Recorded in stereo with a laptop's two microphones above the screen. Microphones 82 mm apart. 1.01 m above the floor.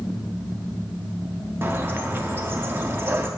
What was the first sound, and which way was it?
A bird, 30° right (ahead or behind).